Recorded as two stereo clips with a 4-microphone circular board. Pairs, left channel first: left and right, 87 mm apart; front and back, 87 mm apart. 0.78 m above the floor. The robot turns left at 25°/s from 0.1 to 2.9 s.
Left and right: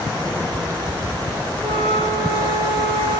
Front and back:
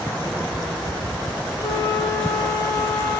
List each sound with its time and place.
1.6 s a flute: 75° right, 8.5 m; by 3.2 s 105° right, 8.5 m